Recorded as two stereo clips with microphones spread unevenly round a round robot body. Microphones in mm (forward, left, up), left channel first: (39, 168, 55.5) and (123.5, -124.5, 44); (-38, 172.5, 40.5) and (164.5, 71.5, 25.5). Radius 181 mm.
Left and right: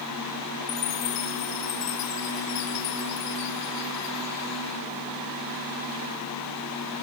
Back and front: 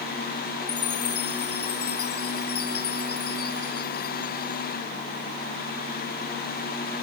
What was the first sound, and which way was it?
A chime, 140° left.